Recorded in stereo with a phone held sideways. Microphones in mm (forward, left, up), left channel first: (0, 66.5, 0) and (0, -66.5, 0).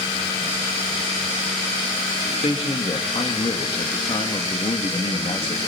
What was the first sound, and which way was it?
A man speaking, 45° left (ahead or behind).